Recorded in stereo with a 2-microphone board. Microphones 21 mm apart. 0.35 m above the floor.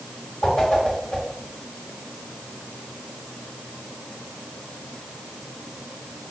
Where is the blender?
I don't hear a blender.